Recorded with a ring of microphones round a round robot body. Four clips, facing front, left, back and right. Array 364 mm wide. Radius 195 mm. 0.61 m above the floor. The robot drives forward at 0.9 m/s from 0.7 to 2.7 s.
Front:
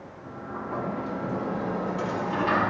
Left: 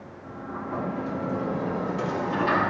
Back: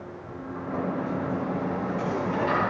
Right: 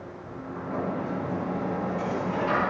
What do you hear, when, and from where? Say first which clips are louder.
0.2 s a sliding door: left 2 dB, front 1 dB; 40° left, 7 m; by 2.7 s 50° left, 6 m